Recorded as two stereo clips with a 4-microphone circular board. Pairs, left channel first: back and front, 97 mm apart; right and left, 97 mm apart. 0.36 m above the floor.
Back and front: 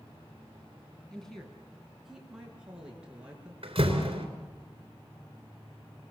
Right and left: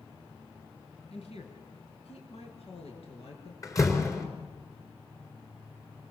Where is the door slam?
30° right, 3.5 m.